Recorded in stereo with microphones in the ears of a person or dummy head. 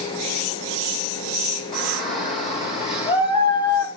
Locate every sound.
1.7 s a shout: 35° left (ahead or behind), 4 m; by 3.9 s 15° left (ahead or behind), 2.5 m